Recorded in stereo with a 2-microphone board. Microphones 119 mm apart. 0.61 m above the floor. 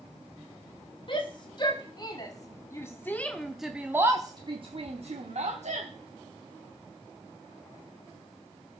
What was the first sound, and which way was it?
A shout, 45° left (ahead or behind).